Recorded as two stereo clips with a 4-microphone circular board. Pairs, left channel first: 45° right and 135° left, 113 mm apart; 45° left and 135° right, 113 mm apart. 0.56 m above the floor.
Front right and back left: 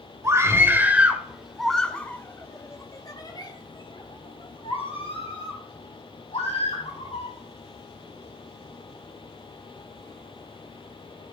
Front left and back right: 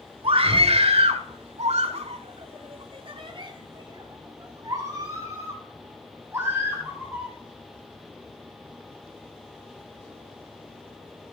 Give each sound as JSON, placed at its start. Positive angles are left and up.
{"t": 0.2, "sound": "a scream", "azimuth_deg": -165, "distance_m": 1.7}